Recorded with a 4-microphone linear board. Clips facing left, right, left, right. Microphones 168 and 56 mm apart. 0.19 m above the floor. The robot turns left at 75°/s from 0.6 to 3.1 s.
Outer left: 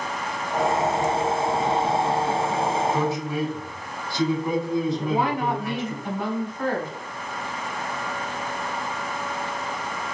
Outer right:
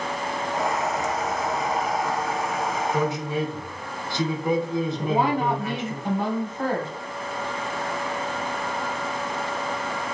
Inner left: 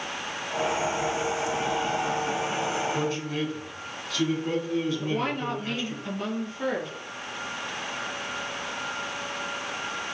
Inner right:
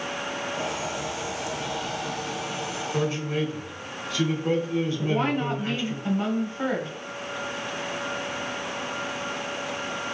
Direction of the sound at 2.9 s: 15° right (ahead or behind).